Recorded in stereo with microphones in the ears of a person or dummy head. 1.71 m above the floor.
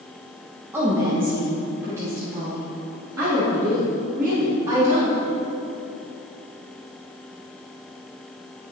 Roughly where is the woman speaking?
Centre.